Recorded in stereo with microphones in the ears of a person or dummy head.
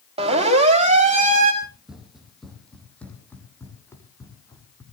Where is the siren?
25° right (ahead or behind), 4 m; by 1.5 s 40° right (ahead or behind), 2.5 m.